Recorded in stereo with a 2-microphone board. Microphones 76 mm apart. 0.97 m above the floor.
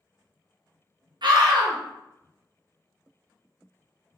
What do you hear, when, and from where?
1.2 s a scream: 70° right (ahead or behind), 0.7 m